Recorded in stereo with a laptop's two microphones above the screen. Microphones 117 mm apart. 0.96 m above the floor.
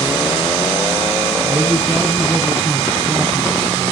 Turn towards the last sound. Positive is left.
turn(degrees=15)  # may be behind; listen again after turning